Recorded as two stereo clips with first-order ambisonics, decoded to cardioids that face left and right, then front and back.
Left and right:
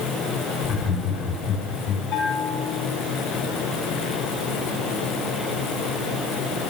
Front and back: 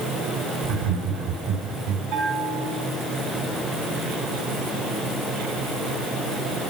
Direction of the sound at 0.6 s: 170° left.